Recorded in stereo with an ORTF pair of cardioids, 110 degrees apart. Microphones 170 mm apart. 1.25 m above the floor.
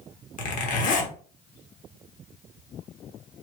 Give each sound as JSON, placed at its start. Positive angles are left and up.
{"t": 0.4, "sound": "a zipper", "azimuth_deg": 50, "distance_m": 1.1}